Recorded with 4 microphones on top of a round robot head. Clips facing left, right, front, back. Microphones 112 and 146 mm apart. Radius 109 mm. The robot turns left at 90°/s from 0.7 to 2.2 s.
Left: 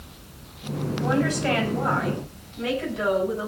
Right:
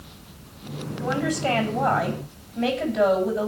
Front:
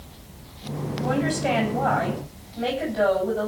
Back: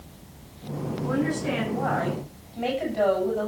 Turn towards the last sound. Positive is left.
turn(degrees=-95)